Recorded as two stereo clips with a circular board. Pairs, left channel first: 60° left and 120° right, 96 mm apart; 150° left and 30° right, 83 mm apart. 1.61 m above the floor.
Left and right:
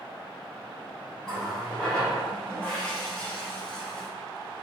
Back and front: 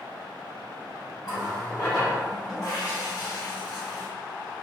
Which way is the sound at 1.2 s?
140° left.